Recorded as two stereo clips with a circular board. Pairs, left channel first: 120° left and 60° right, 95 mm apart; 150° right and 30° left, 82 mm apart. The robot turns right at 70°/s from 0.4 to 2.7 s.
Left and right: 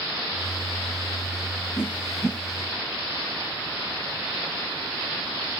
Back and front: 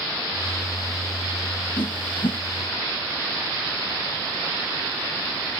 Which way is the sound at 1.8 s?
Straight behind.